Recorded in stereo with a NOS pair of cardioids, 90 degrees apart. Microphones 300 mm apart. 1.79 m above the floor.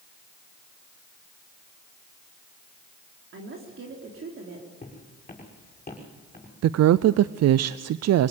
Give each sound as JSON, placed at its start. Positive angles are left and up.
{"t": 3.3, "sound": "a woman speaking", "azimuth_deg": -45, "distance_m": 3.5}
{"t": 4.8, "sound": "footsteps", "azimuth_deg": 25, "distance_m": 6.5}
{"t": 6.6, "sound": "a woman speaking", "azimuth_deg": -60, "distance_m": 0.6}